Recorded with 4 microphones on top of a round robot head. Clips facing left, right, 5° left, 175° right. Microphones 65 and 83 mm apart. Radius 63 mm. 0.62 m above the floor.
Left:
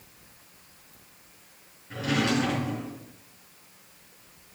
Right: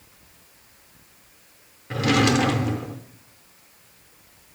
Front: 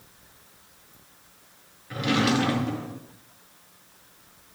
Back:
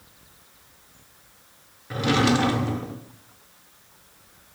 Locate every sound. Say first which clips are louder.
1.9 s a drawer: right 6 dB, back 3 dB; 115° right, 0.7 m